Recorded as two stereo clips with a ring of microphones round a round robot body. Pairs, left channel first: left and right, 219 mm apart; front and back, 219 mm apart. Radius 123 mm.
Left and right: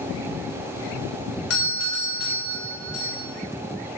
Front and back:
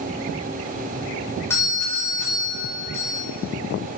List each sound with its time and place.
1.5 s a doorbell: 80° left, 3.5 m